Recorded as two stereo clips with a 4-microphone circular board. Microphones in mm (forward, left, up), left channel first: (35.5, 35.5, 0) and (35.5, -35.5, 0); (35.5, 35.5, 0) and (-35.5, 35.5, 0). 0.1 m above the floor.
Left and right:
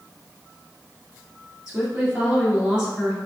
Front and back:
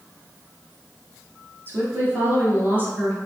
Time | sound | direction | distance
1.7 | a woman speaking | 165° right | 1.9 m